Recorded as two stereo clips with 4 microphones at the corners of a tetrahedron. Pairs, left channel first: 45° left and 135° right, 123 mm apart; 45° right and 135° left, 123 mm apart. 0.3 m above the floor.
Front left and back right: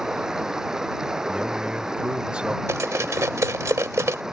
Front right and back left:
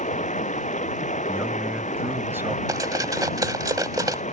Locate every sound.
0.0 s running water: 50° right
1.3 s a man speaking: 160° left
2.7 s cutlery clinking: 170° left